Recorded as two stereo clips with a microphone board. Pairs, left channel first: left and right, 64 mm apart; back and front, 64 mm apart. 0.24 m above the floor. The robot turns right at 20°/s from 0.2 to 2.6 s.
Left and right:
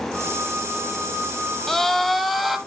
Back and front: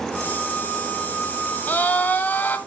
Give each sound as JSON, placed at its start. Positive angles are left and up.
{"t": 1.7, "sound": "a scream", "azimuth_deg": 170, "distance_m": 1.0}